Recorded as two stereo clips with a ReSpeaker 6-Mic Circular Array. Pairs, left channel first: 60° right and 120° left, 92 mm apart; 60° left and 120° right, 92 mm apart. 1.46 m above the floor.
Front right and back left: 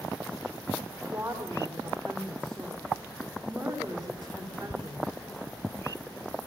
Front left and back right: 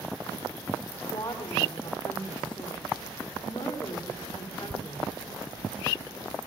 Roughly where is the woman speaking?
Left.